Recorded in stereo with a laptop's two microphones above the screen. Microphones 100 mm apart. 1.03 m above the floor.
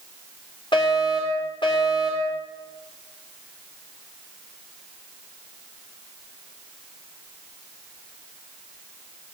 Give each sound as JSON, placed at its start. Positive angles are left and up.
{"t": 0.7, "sound": "a fire alarm", "side_deg": 55, "distance_m": 5.5}